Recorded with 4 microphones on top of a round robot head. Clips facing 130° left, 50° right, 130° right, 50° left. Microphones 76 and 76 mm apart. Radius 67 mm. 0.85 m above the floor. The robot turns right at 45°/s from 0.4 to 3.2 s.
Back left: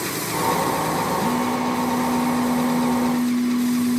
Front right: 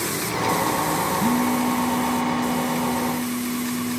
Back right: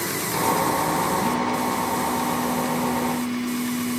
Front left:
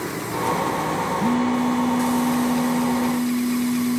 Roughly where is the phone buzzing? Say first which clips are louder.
Front right 1 dB, front left 3 dB; ahead.